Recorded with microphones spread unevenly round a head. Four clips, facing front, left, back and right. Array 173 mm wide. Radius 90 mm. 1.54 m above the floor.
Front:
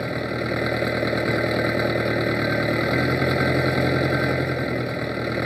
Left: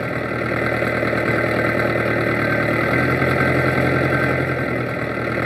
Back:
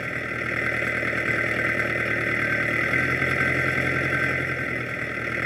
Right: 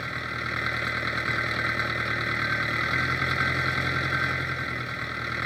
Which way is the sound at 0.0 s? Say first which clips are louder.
Left 11 dB, front 5 dB; 70° left.